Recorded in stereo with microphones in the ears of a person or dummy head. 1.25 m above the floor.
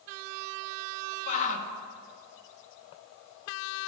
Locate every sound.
1.3 s a shout: 40° left (ahead or behind), 1.7 m